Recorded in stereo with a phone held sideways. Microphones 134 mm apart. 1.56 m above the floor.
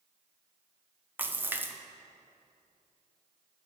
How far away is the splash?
About 0.5 m.